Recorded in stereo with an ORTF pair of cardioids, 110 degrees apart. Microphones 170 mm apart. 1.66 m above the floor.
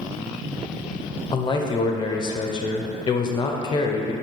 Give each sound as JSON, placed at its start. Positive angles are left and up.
{"t": 1.3, "sound": "a man speaking", "azimuth_deg": 25, "distance_m": 0.5}